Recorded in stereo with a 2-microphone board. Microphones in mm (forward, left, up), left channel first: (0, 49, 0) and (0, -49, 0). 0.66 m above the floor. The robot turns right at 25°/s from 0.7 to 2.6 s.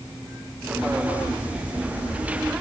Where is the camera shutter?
No camera shutter in this recording.